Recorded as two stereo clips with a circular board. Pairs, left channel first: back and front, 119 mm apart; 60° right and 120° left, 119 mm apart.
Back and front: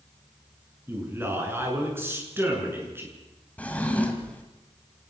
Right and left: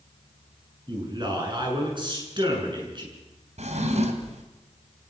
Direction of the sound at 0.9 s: 70° left.